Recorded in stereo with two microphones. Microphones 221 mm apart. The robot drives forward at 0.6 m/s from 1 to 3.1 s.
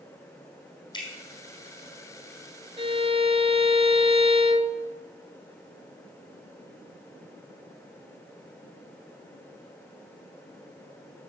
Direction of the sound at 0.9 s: 20° left (ahead or behind).